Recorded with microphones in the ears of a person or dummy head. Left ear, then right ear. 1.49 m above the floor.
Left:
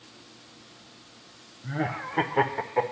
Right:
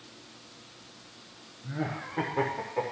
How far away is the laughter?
About 0.6 m.